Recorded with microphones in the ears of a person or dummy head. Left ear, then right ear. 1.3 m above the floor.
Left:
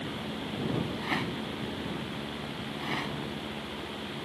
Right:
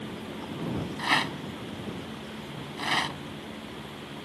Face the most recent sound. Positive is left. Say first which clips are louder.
# right 6 dB
turn(degrees=-40)  # may be behind; listen again after turning